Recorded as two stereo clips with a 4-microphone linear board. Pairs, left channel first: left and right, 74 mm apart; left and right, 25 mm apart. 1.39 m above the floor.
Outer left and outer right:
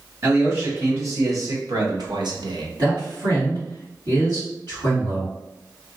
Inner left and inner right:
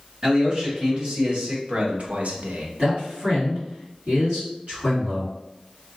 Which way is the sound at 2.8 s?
70° right (ahead or behind).